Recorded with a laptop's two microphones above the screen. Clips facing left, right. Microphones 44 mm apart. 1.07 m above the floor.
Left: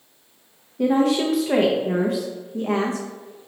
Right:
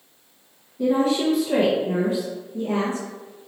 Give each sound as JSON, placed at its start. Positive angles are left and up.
{"t": 0.8, "sound": "a woman speaking", "side_deg": 70, "distance_m": 0.5}